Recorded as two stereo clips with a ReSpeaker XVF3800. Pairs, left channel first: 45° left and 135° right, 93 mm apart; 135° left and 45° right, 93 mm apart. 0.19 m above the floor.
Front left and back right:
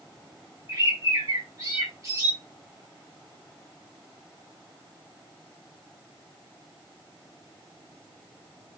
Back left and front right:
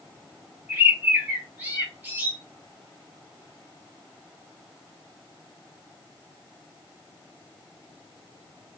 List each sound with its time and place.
0.7 s a bird: 105° right, 1.6 m